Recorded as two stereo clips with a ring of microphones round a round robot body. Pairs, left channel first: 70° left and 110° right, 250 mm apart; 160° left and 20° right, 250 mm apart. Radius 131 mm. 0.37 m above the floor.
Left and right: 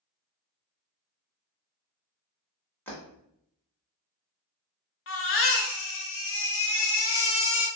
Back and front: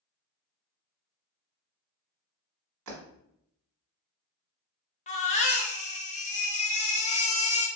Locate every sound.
2.9 s breaking glass: 15° right, 1.3 m
5.1 s a baby crying: 100° left, 0.7 m